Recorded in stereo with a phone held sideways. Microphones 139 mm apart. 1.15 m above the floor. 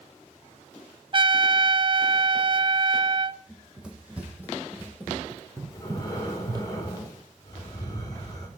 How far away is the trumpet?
About 0.5 m.